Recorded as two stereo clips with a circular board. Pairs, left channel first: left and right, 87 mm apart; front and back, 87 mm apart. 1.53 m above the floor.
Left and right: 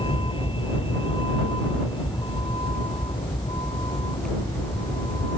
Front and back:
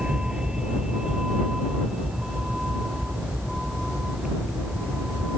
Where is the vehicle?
100° left; by 5.4 s 95° left.